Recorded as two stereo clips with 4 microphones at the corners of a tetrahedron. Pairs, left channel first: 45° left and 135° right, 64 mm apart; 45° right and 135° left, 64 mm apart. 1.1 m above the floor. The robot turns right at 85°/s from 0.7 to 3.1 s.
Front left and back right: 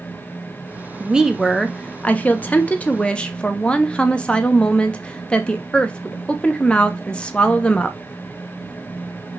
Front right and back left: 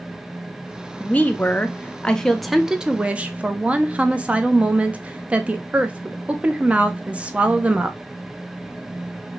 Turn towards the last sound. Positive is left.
turn(degrees=95)